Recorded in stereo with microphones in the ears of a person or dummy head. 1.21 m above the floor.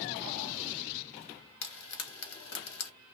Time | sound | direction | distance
1.6 | frying | 55° left (ahead or behind) | 1.5 m